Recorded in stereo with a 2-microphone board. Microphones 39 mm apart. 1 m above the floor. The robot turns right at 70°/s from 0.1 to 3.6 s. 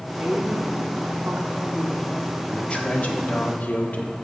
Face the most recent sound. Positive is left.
turn(degrees=100)